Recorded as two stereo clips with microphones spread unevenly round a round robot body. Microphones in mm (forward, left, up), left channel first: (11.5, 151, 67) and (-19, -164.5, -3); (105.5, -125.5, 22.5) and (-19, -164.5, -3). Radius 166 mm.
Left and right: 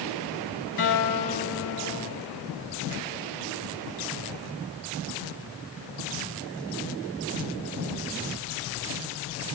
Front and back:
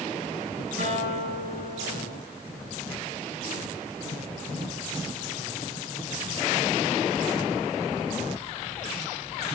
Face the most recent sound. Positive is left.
turn(degrees=135)